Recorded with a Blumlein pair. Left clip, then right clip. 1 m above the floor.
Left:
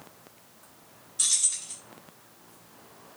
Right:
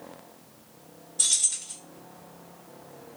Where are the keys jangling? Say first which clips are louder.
Right 1 dB; straight ahead, 1.0 m.